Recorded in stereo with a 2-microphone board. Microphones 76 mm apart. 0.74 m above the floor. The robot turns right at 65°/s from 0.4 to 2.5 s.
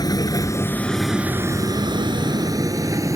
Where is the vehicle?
60° left (ahead or behind); by 3.2 s 45° right (ahead or behind).